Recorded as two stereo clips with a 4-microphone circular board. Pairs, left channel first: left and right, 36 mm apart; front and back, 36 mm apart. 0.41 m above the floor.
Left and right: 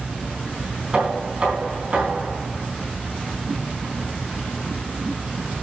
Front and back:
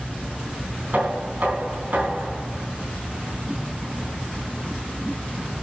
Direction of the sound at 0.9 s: 145° right.